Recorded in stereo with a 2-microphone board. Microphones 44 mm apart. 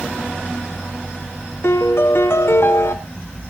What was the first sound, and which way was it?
A piano, 65° left (ahead or behind).